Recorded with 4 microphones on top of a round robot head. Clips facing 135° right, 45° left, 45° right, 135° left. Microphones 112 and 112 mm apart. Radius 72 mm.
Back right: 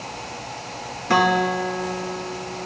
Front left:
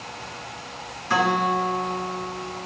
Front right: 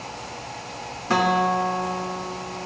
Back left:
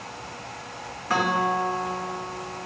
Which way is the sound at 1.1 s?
105° right.